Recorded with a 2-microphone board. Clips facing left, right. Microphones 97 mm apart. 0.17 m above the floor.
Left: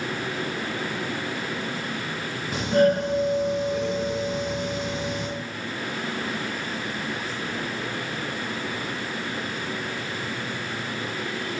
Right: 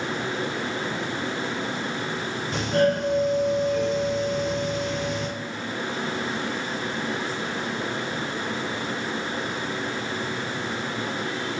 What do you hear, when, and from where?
2.5 s a doorbell: 10° left (ahead or behind), 1.6 m